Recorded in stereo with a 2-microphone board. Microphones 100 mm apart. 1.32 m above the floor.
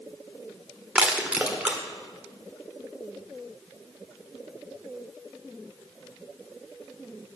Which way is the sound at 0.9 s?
10° right (ahead or behind).